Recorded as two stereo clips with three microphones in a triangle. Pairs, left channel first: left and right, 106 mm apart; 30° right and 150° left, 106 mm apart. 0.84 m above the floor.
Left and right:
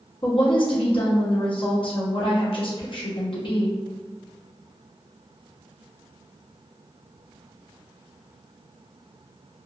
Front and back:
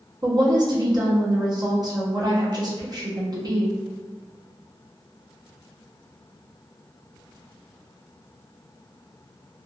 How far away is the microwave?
No microwave in this recording.